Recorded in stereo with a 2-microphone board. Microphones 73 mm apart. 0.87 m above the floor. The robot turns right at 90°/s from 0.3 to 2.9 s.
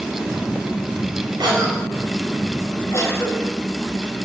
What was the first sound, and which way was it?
A cough, 80° right.